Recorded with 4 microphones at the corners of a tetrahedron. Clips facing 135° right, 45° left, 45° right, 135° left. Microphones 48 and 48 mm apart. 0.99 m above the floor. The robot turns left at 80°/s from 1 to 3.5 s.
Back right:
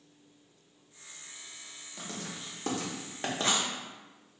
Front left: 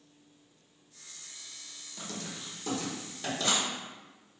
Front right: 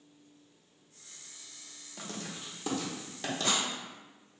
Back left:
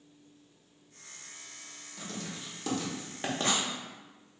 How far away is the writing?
About 0.8 m.